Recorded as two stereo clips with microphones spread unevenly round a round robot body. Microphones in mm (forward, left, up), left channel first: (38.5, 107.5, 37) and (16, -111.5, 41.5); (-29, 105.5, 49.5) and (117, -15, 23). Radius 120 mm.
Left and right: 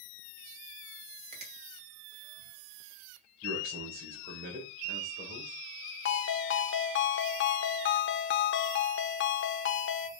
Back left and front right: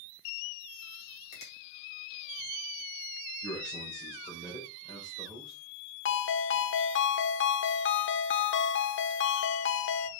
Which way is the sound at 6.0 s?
120° left.